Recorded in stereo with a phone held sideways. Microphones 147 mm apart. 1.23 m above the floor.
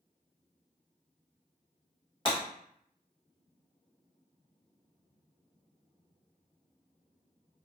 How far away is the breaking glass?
About 1.5 m.